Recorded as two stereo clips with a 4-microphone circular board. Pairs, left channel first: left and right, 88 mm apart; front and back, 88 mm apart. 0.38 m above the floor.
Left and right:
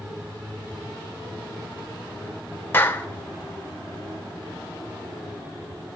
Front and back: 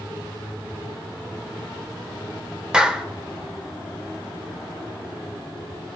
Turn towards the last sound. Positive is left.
turn(degrees=110)